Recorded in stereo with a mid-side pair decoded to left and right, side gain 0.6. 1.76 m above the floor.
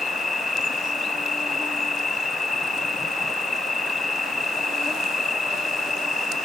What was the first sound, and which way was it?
An insect, 20° left.